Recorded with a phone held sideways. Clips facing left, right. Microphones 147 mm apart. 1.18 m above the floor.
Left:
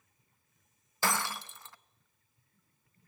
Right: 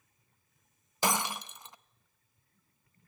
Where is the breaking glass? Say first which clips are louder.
Right 2 dB; 20° right (ahead or behind), 0.6 m.